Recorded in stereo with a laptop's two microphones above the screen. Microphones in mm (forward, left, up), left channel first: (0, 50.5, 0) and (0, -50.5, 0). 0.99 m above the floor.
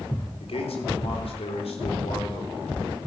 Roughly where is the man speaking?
Left.